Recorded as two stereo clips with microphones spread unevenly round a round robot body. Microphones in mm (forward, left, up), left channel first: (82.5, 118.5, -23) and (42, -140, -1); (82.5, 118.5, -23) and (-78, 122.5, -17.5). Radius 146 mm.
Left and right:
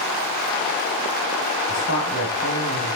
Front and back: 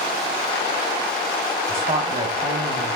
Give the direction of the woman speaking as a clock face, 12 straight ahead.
8 o'clock.